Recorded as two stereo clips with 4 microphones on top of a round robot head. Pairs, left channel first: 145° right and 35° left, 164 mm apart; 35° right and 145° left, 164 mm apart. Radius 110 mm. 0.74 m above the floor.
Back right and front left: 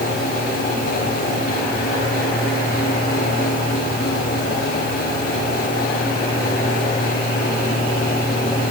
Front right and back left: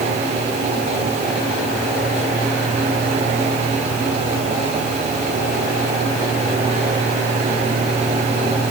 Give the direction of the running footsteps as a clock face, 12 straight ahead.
No running footsteps in this recording.